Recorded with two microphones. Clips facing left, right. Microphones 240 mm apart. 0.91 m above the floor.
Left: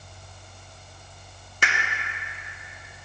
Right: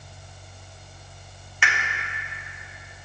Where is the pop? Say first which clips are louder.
Even; 40° left (ahead or behind), 1.2 m.